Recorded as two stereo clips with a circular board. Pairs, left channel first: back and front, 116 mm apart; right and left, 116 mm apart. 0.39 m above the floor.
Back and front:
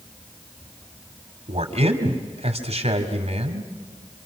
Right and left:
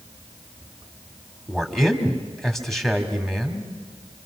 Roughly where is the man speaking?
Ahead.